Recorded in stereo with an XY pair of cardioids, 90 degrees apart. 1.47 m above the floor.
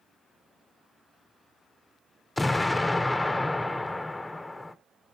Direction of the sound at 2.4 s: 15° left.